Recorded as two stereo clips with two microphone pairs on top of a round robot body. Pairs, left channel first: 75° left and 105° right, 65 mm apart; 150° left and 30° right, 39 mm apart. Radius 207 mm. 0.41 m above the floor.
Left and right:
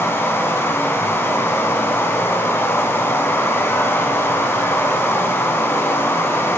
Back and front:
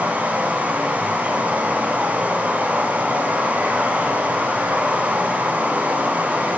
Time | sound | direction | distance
0.0 | running water | 25° left | 4 m